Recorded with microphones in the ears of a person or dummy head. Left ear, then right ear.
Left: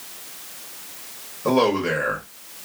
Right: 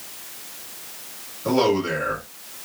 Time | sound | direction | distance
1.4 | a man speaking | 25° left (ahead or behind) | 1.6 m